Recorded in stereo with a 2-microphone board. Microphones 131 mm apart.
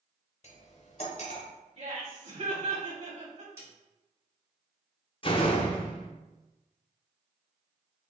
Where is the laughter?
45° right (ahead or behind), 1.2 m.